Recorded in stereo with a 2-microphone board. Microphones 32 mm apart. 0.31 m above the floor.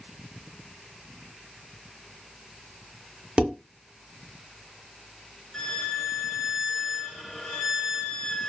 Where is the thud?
No thud in this recording.